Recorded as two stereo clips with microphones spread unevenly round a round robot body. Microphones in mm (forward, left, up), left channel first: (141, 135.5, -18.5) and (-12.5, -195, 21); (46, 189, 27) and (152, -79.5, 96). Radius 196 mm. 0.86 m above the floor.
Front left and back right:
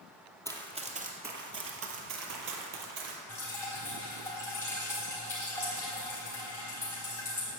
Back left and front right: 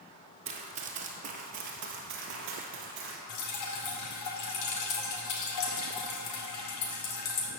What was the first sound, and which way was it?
Running footsteps, 40° right.